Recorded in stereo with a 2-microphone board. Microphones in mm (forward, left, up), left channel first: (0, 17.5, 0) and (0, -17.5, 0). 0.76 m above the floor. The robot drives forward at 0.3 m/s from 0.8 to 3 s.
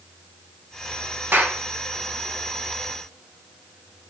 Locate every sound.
1.3 s a clap: 65° right (ahead or behind), 4.5 m